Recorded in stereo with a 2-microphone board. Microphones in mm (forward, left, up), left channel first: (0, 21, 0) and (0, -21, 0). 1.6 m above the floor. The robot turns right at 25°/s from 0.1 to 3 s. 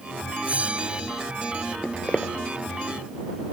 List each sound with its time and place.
0.4 s a bell: 35° right (ahead or behind); by 1.2 s 15° right (ahead or behind)
1.8 s footsteps: 25° left (ahead or behind)